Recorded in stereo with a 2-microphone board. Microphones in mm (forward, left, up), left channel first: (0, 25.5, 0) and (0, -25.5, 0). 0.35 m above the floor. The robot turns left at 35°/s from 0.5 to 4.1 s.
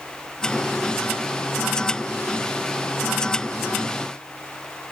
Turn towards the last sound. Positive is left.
No sound to turn to.